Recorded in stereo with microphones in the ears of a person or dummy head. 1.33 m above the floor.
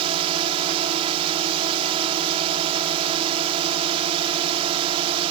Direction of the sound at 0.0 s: 35° right (ahead or behind).